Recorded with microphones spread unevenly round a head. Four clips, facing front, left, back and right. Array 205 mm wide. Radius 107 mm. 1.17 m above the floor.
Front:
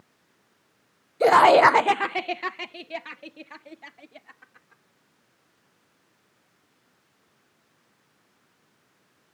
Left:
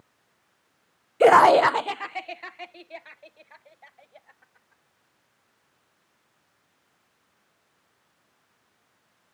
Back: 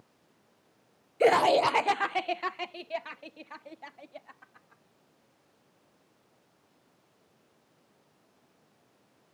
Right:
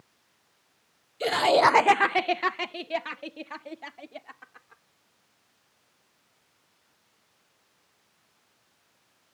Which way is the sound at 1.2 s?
80° left.